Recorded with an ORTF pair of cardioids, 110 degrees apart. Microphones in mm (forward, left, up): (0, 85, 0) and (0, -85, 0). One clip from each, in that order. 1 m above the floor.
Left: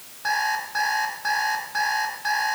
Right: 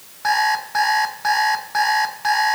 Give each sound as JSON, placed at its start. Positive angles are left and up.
{"t": 0.2, "sound": "an alarm clock", "azimuth_deg": -35, "distance_m": 3.5}